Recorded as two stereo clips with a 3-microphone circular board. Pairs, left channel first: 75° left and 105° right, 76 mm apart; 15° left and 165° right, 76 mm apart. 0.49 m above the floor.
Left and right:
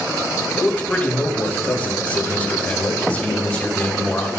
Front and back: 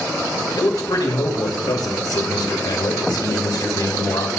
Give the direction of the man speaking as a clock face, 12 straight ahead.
12 o'clock.